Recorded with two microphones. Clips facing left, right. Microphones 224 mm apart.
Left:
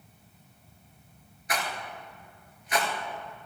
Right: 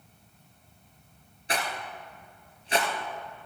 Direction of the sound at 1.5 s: 30° right (ahead or behind).